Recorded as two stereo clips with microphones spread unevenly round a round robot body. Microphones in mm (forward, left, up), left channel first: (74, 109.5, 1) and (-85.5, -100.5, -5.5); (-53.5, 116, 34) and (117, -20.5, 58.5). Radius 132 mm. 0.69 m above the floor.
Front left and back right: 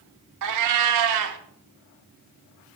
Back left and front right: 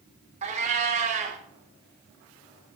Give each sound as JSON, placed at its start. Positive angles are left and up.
{"t": 0.4, "sound": "a cat meowing", "azimuth_deg": -105, "distance_m": 0.8}